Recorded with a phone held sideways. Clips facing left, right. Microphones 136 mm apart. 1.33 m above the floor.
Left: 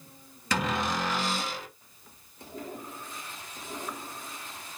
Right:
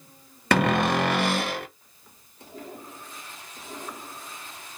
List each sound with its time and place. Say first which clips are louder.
0.5 s a cupboard door: right 8 dB; 70° right (ahead or behind), 0.5 m